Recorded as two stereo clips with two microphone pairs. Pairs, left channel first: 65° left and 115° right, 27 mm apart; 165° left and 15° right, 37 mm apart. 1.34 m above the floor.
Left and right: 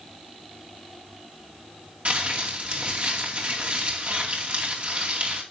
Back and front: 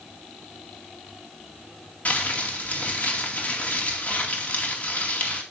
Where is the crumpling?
145° right, 2.5 m.